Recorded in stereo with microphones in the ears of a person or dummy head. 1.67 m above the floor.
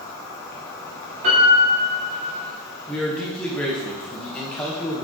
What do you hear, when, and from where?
0.0 s an insect: 15° left (ahead or behind), 0.9 m
1.2 s a piano: 30° right (ahead or behind), 1.4 m
2.9 s a man speaking: 5° left (ahead or behind), 1.4 m